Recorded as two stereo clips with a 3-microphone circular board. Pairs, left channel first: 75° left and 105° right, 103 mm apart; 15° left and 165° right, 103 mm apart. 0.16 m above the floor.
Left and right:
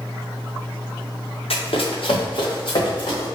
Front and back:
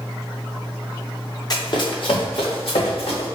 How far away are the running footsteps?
About 1.5 m.